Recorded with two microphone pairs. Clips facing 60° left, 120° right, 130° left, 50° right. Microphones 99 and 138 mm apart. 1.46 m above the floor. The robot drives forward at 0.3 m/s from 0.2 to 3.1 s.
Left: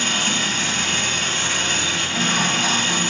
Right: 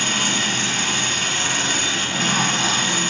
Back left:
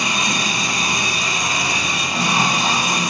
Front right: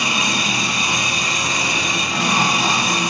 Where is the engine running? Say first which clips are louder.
Even, even; 130° right, 0.9 m; by 3.1 s 155° right, 1.6 m.